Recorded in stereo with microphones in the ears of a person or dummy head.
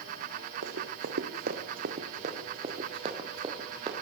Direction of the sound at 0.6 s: 65° right (ahead or behind).